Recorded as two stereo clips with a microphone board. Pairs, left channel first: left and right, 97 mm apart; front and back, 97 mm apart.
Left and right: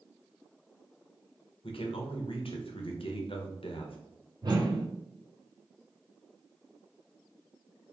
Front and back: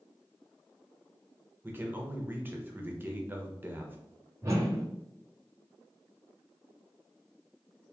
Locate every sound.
1.6 s a man speaking: 110° left, 0.9 m
4.4 s a whoosh: 125° right, 1.0 m